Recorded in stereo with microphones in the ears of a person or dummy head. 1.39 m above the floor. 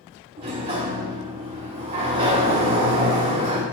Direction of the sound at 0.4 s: 35° right (ahead or behind).